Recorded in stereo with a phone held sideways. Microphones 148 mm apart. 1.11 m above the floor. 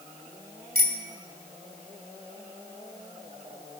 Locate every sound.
0.8 s a bicycle bell: 75° right (ahead or behind), 2 m